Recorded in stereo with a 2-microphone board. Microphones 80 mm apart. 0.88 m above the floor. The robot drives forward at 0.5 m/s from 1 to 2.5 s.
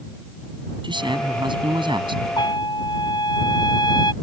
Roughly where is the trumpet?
Left.